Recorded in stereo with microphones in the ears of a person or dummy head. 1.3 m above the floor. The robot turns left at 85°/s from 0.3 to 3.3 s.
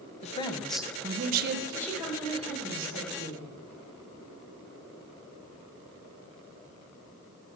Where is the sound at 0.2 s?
40° left, 1.0 m; by 1.6 s 70° right, 1.0 m.